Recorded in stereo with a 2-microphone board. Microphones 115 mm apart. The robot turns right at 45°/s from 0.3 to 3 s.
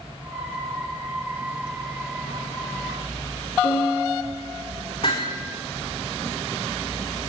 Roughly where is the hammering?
Left.